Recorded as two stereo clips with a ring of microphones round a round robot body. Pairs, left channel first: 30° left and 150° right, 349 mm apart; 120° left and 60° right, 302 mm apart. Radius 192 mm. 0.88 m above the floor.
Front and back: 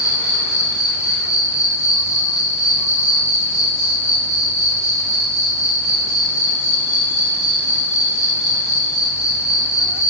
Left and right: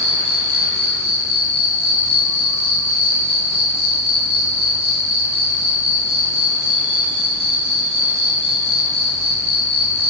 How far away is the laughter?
No laughter in this recording.